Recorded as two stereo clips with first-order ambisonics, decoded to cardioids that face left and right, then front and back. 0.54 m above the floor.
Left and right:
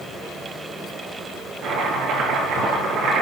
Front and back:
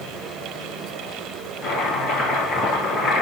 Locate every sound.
1.6 s chopping: 50° right, 6.5 m